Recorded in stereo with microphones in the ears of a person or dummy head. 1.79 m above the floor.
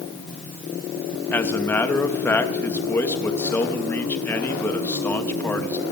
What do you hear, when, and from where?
1.3 s a man speaking: 10° left (ahead or behind), 2.5 m